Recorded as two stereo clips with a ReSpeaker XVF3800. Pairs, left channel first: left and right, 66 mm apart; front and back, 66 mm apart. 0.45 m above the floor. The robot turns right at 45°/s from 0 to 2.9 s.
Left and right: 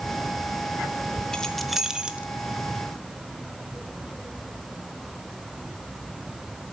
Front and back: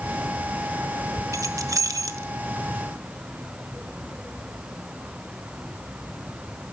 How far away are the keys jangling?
About 0.7 m.